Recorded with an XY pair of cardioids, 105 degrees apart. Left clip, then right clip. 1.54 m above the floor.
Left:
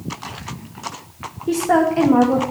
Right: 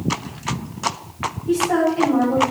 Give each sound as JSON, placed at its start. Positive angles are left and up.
{"t": 1.5, "sound": "a woman speaking", "azimuth_deg": 60, "distance_m": 1.5}